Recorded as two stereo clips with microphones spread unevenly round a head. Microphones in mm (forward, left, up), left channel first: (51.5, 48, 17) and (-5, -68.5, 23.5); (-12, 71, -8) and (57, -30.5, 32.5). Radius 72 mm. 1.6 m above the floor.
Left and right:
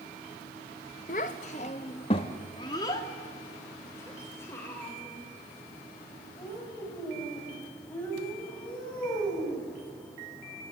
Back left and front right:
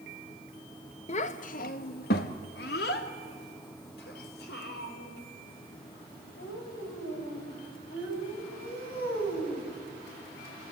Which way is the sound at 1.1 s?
80° left.